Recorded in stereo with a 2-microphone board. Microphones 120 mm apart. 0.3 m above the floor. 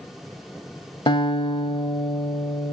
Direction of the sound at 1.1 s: 45° left (ahead or behind).